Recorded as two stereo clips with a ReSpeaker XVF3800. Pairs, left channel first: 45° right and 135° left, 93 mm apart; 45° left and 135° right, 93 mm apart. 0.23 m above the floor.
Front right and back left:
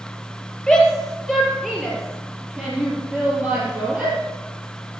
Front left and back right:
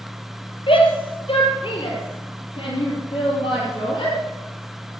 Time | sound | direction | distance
0.7 | a shout | 40° left | 4.5 m